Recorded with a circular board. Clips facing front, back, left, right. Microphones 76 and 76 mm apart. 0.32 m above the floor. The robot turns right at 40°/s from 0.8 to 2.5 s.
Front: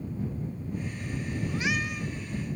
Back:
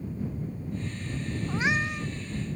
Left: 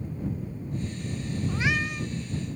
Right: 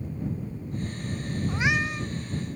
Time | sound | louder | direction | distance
1.5 | a cat meowing | back 4 dB, right 2 dB | 155° right | ?